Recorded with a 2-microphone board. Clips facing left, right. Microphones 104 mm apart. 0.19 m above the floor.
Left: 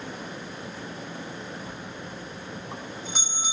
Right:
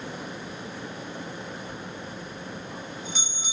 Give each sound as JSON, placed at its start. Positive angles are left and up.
{"t": 1.7, "sound": "a bell", "side_deg": 50, "distance_m": 4.5}